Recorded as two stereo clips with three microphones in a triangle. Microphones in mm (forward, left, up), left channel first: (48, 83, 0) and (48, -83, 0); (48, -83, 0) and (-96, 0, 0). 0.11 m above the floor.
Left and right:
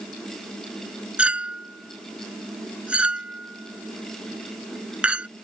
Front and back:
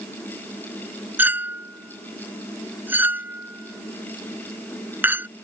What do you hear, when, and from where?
1.2 s a clink: 160° right